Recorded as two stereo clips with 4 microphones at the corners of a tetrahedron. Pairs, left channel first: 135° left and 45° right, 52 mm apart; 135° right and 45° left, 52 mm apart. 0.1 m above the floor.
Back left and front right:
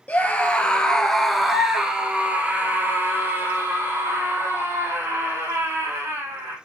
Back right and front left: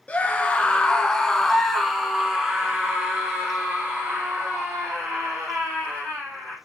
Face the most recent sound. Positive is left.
turn(degrees=-15)